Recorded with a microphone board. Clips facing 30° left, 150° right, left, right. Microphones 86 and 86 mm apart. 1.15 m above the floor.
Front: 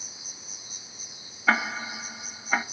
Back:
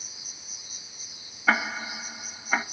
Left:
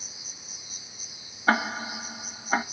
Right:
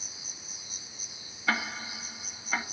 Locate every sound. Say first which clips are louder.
0.0 s an insect: front 2 dB, even; 30° right, 2 m
1.5 s ticking: even, left 7 dB; 120° left, 0.8 m